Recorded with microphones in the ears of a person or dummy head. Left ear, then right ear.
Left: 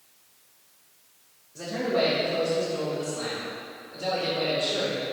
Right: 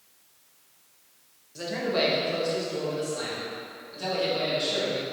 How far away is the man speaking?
About 0.9 m.